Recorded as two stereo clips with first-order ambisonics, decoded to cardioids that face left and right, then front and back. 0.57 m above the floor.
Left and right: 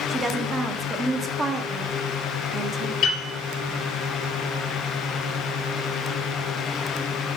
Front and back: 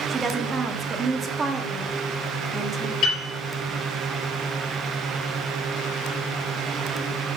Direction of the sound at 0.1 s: 140° right.